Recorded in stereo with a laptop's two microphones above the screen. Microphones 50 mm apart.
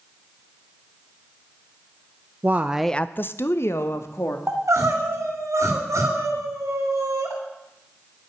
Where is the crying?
70° right (ahead or behind), 2.5 m.